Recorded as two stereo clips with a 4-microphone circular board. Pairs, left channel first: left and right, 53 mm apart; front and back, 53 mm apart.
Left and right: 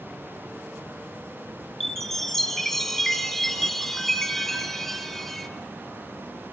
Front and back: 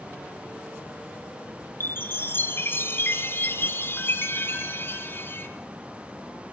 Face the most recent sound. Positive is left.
turn(degrees=5)